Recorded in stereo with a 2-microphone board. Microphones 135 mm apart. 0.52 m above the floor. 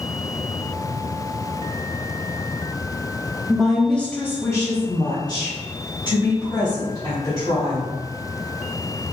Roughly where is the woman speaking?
Centre.